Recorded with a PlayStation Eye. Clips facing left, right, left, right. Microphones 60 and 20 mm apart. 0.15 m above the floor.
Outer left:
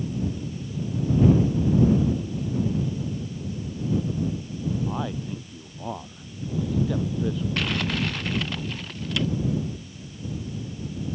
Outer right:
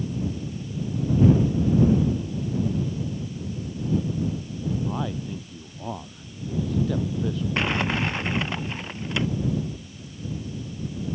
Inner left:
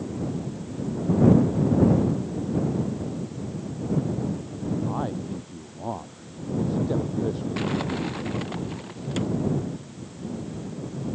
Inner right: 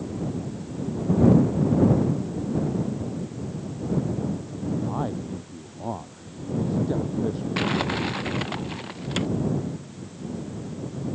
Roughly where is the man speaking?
Centre.